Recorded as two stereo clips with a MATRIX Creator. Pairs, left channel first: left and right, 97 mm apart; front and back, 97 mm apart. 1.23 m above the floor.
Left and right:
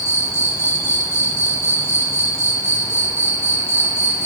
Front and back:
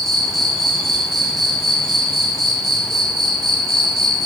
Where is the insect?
85° left, 1.2 m.